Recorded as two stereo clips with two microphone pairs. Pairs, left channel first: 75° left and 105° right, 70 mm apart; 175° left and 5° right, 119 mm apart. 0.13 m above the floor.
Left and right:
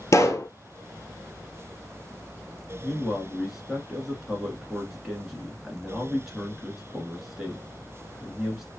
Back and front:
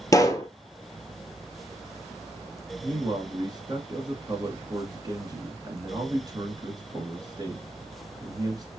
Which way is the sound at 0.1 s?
115° left.